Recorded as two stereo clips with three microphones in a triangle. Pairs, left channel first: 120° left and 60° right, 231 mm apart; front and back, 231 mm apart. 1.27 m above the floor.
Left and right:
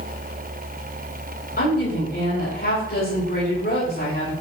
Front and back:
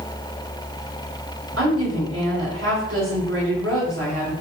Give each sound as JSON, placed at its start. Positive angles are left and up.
{"t": 1.6, "sound": "a woman speaking", "azimuth_deg": 165, "distance_m": 5.0}